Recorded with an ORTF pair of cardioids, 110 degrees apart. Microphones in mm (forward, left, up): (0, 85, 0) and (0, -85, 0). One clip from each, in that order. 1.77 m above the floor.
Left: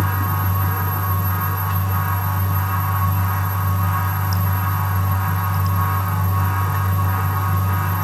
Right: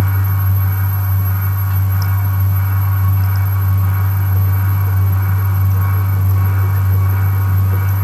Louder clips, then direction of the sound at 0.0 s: Left 2 dB; 60° left.